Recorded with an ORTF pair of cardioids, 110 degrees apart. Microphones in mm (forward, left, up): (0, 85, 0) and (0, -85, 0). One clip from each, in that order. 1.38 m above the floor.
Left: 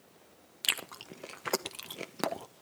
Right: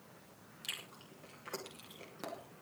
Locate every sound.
0.6 s chewing: 70° left, 0.9 m